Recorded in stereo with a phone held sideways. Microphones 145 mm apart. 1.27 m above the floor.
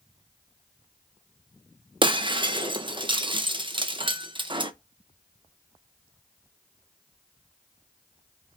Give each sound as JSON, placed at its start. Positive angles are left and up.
{"t": 2.0, "sound": "breaking glass", "side_deg": -35, "distance_m": 0.6}